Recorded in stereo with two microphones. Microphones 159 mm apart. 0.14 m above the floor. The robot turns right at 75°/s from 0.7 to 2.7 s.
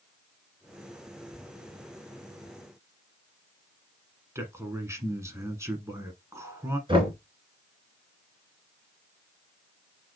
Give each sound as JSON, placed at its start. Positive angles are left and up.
{"t": 4.3, "sound": "a man speaking", "side_deg": -20, "distance_m": 1.2}
{"t": 6.9, "sound": "knocking", "side_deg": -30, "distance_m": 1.8}